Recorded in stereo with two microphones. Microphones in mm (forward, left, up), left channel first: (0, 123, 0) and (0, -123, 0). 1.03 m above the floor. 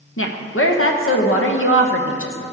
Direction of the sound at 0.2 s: 60° left (ahead or behind).